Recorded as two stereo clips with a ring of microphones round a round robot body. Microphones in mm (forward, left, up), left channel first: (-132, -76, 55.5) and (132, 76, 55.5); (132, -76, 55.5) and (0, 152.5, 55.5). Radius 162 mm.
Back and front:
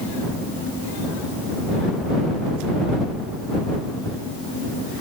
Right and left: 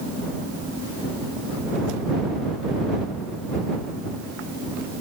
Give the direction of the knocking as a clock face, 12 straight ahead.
I don't hear knocking.